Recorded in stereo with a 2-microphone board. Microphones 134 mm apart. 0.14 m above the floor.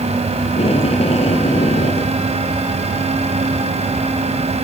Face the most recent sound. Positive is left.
turn(degrees=55)  # may be behind; listen again after turning